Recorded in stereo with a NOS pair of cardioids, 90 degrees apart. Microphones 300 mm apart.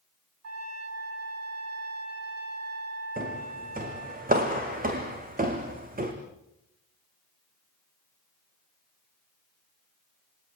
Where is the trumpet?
50° right, 9 m.